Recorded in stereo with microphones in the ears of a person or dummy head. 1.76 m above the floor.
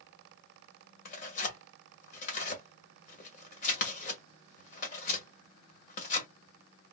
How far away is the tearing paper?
About 1.6 m.